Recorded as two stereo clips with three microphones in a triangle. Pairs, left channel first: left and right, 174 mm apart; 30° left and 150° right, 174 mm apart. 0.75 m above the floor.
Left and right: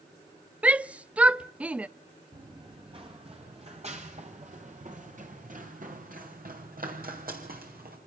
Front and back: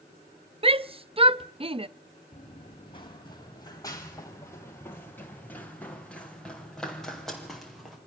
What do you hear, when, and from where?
0.6 s a shout: 170° right, 0.6 m
2.3 s running footsteps: 25° right, 3.5 m; by 8.0 s 60° right, 6.5 m